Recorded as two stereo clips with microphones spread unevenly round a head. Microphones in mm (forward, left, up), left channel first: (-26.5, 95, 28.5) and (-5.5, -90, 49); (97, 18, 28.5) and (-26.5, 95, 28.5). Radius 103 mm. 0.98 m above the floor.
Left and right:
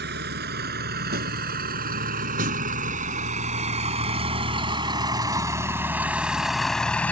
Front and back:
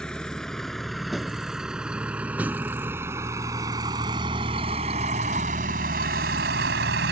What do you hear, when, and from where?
0.0 s a vehicle: 120° right; by 7.1 s straight behind